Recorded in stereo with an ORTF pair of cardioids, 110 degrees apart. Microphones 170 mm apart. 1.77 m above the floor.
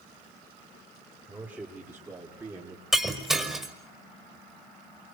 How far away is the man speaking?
About 5.5 m.